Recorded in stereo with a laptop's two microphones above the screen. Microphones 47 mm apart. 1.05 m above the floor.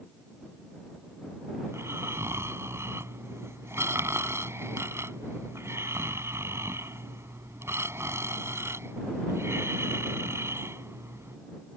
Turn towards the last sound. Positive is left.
turn(degrees=-70)  # may be behind; listen again after turning